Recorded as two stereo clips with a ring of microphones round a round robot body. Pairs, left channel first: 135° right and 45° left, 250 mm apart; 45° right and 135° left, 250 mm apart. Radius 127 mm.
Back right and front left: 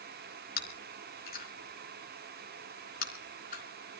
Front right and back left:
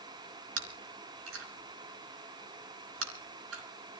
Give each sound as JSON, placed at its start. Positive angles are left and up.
{"t": 0.6, "sound": "chewing", "azimuth_deg": 170, "distance_m": 4.5}